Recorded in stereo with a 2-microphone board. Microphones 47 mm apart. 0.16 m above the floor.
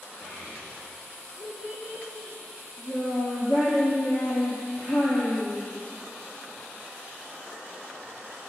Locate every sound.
0.2 s a child speaking: 15° right (ahead or behind), 8 m